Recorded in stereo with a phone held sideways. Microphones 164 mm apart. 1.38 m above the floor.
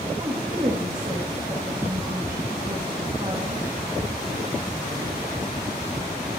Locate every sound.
0.2 s a woman speaking: 30° right (ahead or behind), 2.5 m